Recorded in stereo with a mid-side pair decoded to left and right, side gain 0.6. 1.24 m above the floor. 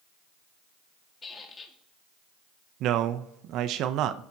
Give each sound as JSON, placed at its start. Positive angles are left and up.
{"t": 1.2, "sound": "a squeak", "azimuth_deg": 25, "distance_m": 1.9}
{"t": 2.8, "sound": "a man speaking", "azimuth_deg": -60, "distance_m": 0.7}